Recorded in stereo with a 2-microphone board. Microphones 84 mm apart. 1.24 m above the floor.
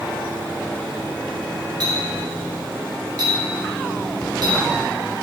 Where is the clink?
50° right (ahead or behind), 3.5 m.